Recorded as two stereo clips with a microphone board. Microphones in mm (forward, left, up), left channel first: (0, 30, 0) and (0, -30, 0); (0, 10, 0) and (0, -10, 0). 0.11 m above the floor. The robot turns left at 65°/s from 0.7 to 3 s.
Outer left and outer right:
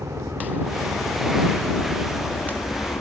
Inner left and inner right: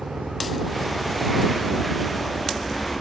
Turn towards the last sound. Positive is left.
turn(degrees=75)  # may be behind; listen again after turning